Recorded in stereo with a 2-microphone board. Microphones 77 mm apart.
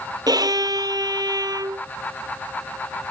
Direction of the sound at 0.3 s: 60° right (ahead or behind).